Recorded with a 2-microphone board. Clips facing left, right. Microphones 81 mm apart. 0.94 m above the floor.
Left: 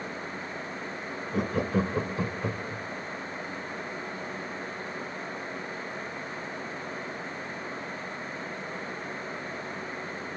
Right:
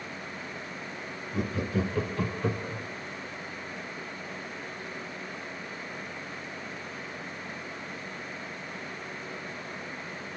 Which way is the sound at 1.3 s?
55° left (ahead or behind).